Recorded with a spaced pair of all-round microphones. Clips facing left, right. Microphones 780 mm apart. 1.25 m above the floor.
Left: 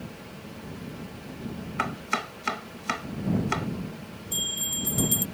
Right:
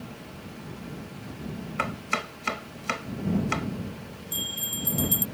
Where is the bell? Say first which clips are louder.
Even; 15° left (ahead or behind).